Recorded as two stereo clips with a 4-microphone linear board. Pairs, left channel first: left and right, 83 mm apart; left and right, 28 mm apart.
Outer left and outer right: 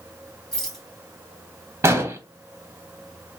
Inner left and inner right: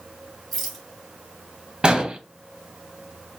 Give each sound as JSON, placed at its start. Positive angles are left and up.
{"t": 0.5, "sound": "a rattle", "side_deg": 5, "distance_m": 3.0}
{"t": 1.8, "sound": "an explosion", "side_deg": -35, "distance_m": 0.9}